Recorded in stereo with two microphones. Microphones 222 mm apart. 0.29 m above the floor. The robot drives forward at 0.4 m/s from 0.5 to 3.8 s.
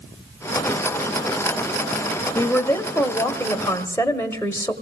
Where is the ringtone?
I don't hear a ringtone.